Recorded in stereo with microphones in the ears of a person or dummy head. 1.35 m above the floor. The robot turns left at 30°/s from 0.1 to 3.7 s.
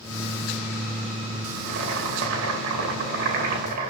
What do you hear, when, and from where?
1.6 s boiling: 60° right, 1.7 m; by 3.9 s 125° right, 1.7 m